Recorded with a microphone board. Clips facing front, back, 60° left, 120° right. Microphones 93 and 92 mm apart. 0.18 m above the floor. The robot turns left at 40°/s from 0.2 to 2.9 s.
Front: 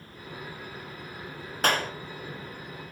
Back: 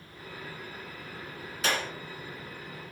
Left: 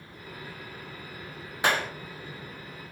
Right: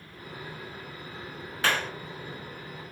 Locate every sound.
1.6 s a clap: 5° right, 1.4 m; by 1.9 s 15° right, 1.4 m